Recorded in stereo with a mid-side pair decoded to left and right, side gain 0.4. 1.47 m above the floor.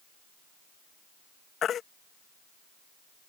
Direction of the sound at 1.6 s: 65° left.